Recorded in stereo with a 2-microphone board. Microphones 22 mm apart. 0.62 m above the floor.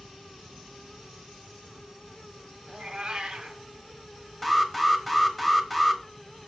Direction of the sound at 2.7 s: 50° right (ahead or behind).